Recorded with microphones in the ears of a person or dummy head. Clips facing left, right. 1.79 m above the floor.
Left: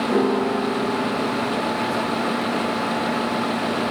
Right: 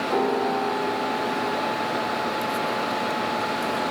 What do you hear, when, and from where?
0.1 s a piano: 30° left (ahead or behind), 0.7 m